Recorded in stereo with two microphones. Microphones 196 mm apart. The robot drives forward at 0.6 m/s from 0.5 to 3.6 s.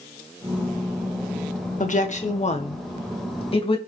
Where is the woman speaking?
40° left (ahead or behind), 1.7 m; by 3.8 s 30° left (ahead or behind), 2.5 m.